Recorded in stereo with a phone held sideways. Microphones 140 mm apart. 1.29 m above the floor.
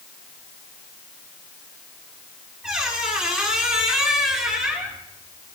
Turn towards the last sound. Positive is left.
turn(degrees=-5)  # may be behind; listen again after turning